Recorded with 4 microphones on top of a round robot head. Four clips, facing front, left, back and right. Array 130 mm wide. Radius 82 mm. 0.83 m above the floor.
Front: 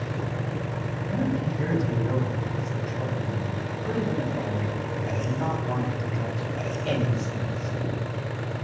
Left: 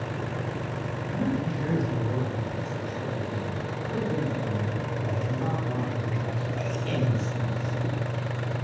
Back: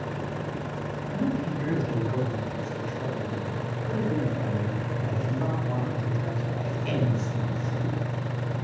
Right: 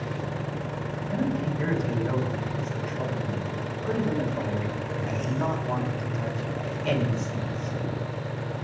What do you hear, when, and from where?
1.1 s a man speaking: 50° right, 7 m